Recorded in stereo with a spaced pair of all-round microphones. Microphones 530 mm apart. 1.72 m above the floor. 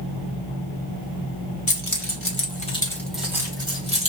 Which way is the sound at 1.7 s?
40° left (ahead or behind).